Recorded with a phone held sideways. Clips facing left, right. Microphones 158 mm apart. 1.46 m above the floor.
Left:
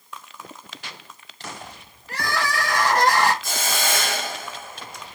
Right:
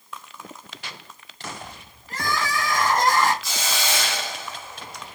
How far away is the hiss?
About 0.6 m.